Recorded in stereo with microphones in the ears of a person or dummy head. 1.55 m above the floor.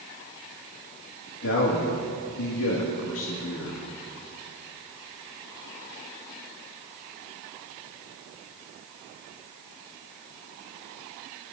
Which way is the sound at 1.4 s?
75° left (ahead or behind).